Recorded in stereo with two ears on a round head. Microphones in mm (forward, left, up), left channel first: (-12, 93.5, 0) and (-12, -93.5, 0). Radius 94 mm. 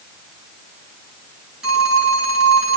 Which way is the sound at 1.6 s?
5° right (ahead or behind).